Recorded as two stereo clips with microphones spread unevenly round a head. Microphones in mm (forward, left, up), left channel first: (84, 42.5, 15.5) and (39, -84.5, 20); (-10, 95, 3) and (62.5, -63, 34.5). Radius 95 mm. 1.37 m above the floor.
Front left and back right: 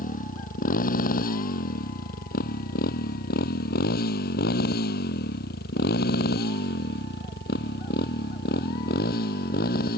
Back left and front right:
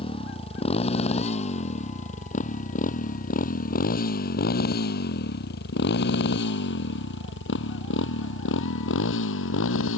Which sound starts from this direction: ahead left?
A motorcycle, at 0.0 s.